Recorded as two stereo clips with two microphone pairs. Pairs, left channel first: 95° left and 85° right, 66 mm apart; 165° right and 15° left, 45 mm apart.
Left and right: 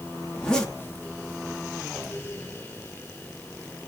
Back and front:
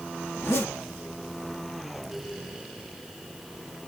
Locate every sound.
0.3 s a zipper: 170° left, 2 m